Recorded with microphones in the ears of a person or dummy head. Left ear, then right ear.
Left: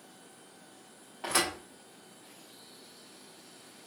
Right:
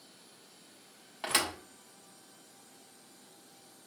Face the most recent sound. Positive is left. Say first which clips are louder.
# left 1 dB
turn(degrees=-35)  # may be behind; listen again after turning